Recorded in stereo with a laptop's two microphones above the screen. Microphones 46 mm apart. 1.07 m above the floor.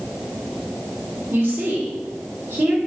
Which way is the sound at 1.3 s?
75° right (ahead or behind).